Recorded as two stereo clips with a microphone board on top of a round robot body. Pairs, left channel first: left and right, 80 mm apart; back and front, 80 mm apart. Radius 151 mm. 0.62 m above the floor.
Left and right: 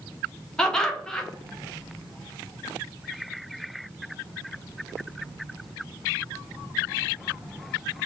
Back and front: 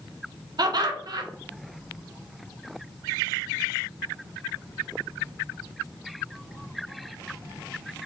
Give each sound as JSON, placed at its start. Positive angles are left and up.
{"t": 0.6, "sound": "laughter", "azimuth_deg": 10, "distance_m": 0.8}